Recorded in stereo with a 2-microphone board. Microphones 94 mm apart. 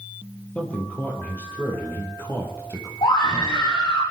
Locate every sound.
0.6 s a man speaking: 15° left (ahead or behind), 4.5 m; by 2.9 s 30° left (ahead or behind), 4.5 m
3.0 s a scream: 70° left (ahead or behind), 5 m